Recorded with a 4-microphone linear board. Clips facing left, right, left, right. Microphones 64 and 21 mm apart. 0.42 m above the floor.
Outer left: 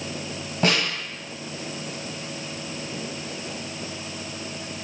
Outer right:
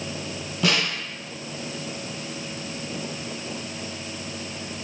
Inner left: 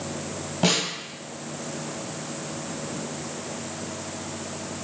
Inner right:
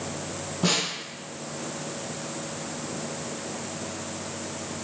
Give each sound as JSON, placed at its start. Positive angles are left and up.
{"t": 0.6, "sound": "a snare drum", "side_deg": 40, "distance_m": 2.0}